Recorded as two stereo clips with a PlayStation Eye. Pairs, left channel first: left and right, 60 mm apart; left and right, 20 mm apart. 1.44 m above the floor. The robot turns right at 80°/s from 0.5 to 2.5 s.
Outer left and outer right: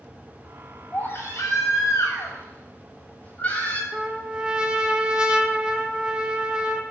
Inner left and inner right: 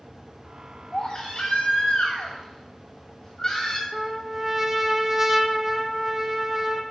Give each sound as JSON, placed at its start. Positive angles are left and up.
{"t": 0.9, "sound": "a baby crying", "azimuth_deg": 25, "distance_m": 6.5}
{"t": 3.9, "sound": "a trumpet", "side_deg": -15, "distance_m": 1.1}